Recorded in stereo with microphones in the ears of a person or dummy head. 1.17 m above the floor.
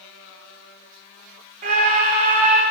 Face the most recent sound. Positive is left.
turn(degrees=-40)  # may be behind; listen again after turning